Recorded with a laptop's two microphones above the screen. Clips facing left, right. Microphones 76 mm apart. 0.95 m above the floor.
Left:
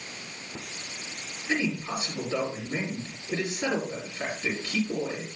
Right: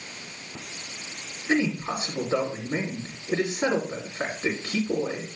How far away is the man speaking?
About 3 m.